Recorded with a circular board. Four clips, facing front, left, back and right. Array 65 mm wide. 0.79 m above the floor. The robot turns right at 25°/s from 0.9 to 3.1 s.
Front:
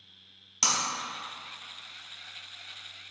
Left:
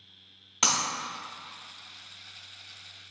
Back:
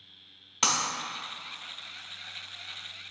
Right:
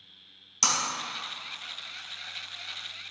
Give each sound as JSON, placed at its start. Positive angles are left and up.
{"t": 0.6, "sound": "breaking glass", "azimuth_deg": 125, "distance_m": 0.9}